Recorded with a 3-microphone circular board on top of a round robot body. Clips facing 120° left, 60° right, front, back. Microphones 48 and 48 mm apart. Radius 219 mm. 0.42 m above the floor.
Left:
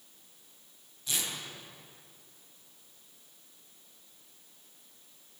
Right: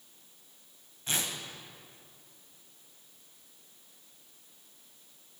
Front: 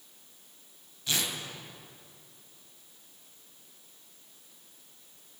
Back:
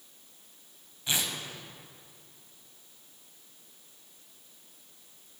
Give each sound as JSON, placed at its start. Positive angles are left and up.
{"t": 1.1, "sound": "tearing paper", "azimuth_deg": -110, "distance_m": 4.0}